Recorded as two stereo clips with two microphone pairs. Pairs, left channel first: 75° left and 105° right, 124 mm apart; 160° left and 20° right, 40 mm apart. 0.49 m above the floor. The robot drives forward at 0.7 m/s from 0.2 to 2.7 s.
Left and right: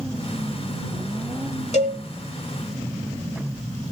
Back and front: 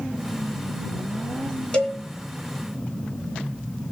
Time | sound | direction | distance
1.7 | a cowbell | 95° left | 2.5 m